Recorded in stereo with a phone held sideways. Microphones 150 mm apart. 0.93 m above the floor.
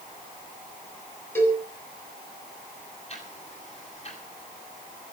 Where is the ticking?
45° left (ahead or behind), 9.5 m.